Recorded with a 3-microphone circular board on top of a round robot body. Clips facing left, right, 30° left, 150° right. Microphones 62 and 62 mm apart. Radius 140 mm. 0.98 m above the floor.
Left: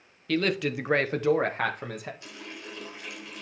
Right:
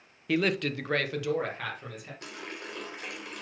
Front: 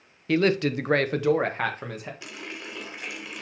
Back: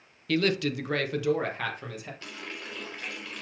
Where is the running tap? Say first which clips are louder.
Right 2 dB, front 2 dB; 50° right, 2.5 m.